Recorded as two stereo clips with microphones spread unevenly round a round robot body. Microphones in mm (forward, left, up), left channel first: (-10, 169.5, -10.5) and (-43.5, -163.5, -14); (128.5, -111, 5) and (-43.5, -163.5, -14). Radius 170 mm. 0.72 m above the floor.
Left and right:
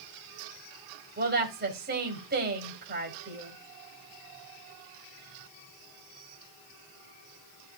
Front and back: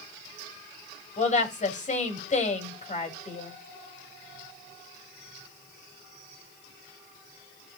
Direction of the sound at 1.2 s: 30° right.